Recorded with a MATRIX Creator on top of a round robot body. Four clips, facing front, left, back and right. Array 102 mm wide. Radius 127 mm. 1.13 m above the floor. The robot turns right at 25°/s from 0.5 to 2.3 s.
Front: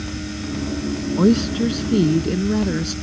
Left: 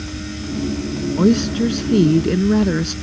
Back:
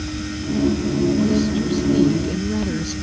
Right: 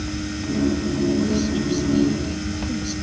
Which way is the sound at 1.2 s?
50° left.